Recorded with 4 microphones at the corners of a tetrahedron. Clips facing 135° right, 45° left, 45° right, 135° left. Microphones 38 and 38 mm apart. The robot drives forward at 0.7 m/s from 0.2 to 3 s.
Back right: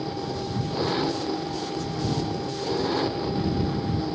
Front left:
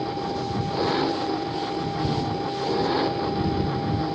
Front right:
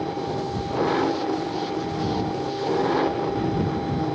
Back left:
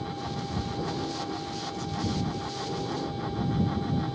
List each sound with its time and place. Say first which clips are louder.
0.0 s an engine running: front left 3 dB, front right 8 dB; 30° right